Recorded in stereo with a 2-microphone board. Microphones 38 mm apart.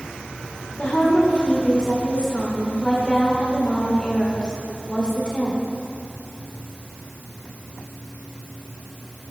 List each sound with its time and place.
0.8 s a woman speaking: 20° left (ahead or behind), 2 m